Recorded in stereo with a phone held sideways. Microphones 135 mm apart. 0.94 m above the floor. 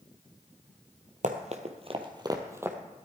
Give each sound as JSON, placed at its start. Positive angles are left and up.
{"t": 1.2, "sound": "running footsteps", "side_deg": -60, "distance_m": 1.7}